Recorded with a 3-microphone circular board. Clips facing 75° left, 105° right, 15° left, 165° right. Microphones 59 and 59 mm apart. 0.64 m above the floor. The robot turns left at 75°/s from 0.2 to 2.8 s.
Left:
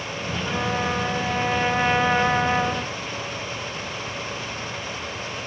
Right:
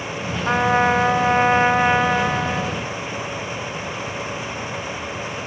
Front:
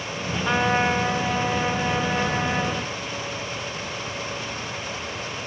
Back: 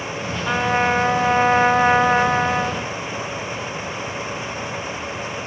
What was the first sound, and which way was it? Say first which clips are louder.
A trumpet: right 9 dB, back 2 dB; 70° right.